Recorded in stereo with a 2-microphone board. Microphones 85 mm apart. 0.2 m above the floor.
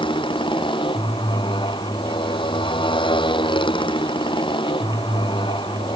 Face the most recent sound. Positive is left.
turn(degrees=75)  # may be behind; listen again after turning